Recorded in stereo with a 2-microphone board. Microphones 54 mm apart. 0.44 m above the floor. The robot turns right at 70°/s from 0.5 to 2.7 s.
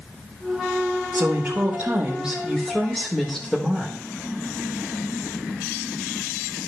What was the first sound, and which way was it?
A woman speaking, 95° right.